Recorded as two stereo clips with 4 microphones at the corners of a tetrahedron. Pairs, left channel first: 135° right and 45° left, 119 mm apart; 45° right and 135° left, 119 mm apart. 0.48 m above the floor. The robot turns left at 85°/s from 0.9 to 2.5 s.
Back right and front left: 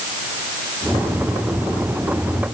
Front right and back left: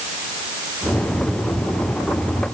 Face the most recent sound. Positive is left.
No sound to turn to.